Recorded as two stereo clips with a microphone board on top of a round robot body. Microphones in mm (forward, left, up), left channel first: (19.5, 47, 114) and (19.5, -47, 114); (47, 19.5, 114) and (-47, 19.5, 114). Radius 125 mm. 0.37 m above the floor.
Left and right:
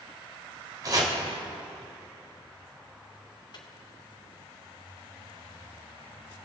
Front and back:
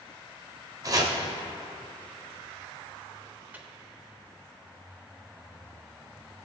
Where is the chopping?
135° right, 1.5 m.